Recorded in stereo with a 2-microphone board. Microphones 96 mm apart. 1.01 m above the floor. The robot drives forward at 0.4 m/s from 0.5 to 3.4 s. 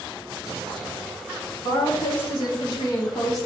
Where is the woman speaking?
55° left (ahead or behind), 1.9 m; by 3.5 s 40° left (ahead or behind), 2.5 m.